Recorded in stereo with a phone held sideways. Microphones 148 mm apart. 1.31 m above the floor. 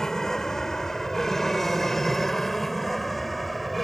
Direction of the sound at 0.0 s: 5° left (ahead or behind).